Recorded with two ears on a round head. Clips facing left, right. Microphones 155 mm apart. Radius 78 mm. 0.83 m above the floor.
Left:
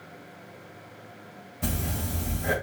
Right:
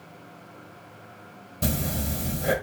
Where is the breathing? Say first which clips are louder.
Right 3 dB; 55° right (ahead or behind), 2.5 m.